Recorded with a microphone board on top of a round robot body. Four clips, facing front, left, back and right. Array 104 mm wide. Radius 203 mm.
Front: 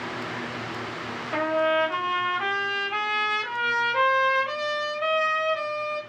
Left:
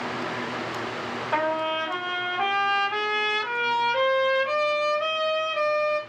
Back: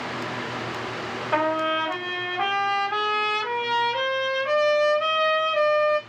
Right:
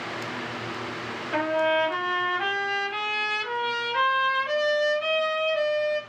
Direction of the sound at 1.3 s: 150° left.